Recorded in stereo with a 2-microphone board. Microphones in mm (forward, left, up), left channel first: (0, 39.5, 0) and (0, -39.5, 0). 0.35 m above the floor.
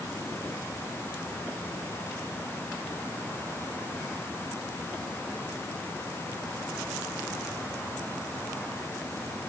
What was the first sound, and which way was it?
Only background noise.